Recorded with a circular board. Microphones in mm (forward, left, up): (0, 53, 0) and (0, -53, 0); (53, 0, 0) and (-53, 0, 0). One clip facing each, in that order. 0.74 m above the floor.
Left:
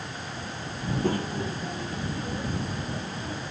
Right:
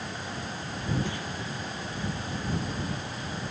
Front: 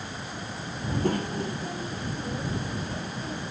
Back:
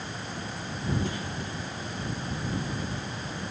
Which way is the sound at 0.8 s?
45° left.